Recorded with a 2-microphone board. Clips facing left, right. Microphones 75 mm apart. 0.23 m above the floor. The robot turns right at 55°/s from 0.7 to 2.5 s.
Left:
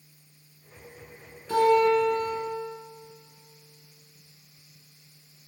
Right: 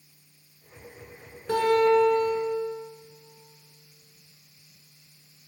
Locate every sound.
1.5 s a guitar: 75° right, 2.5 m; by 2.5 s 20° right, 2.5 m